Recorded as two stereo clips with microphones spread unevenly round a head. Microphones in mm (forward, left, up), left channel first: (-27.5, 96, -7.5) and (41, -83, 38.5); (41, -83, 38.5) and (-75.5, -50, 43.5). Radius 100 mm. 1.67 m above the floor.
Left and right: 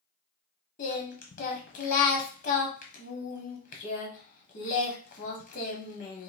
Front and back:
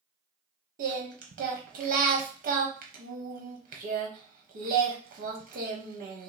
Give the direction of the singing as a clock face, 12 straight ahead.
6 o'clock.